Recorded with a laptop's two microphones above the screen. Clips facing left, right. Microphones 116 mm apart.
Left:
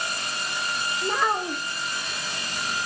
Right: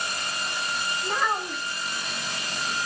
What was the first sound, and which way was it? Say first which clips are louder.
A child speaking: left 3 dB; 60° left (ahead or behind).